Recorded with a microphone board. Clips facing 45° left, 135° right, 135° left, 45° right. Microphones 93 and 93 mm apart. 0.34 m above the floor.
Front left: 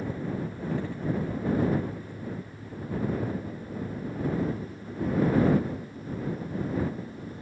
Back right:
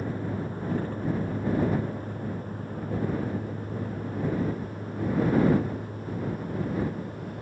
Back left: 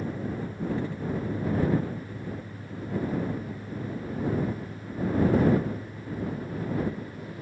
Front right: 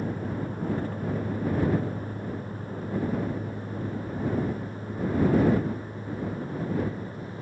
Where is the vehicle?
90° right; by 7.4 s 105° right.